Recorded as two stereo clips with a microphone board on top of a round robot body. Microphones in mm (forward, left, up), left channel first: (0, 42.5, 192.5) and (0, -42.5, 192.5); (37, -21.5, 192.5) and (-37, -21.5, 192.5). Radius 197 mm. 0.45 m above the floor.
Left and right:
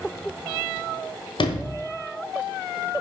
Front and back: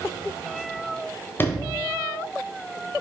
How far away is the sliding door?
About 1.1 m.